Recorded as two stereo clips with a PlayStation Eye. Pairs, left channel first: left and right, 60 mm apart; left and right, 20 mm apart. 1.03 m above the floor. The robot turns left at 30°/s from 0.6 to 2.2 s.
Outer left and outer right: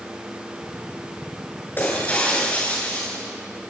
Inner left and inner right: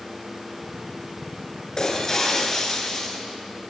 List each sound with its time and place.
1.8 s breaking glass: 35° left (ahead or behind), 8 m; by 3.2 s 20° left (ahead or behind), 8 m